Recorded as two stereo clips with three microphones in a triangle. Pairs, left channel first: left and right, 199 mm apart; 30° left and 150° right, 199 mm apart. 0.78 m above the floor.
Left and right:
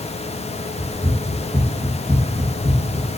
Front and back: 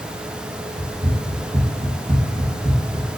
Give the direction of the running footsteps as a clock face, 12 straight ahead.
7 o'clock.